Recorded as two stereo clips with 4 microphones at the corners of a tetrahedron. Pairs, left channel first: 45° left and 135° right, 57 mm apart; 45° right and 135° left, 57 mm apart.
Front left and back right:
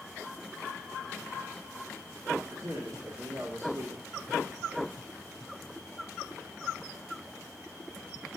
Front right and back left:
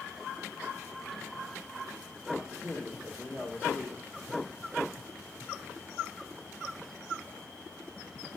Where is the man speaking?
95° right, 2 m.